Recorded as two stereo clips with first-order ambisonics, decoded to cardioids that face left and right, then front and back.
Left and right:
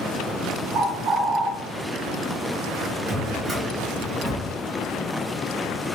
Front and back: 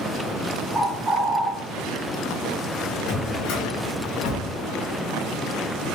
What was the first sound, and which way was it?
A bird, 115° right.